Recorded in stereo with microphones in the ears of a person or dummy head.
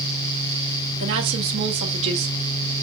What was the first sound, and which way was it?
A woman speaking, 75° right (ahead or behind).